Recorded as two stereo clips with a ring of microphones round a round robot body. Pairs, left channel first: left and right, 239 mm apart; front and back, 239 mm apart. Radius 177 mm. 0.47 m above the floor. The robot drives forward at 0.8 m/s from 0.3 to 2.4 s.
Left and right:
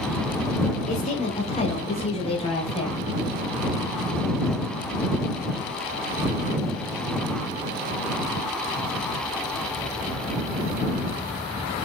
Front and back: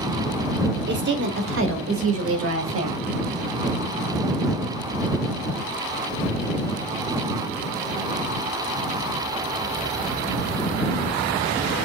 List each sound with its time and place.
0.9 s a woman speaking: 145° left, 1.6 m; by 3.1 s 160° left, 2.5 m